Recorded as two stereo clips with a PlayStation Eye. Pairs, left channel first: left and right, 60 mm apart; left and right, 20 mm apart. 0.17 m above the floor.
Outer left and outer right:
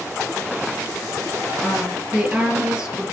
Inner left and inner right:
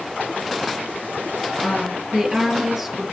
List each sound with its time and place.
1.6 s a woman speaking: 10° right (ahead or behind), 3 m